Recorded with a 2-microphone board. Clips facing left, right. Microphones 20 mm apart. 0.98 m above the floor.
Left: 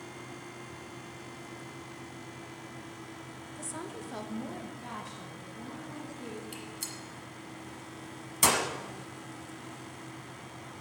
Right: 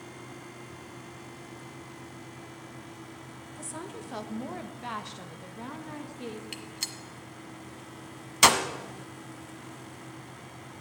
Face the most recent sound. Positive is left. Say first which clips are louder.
# right 4 dB
turn(degrees=-40)  # may be behind; listen again after turning